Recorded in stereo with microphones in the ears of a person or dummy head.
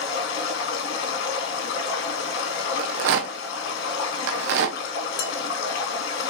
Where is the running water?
65° left (ahead or behind), 2.5 m.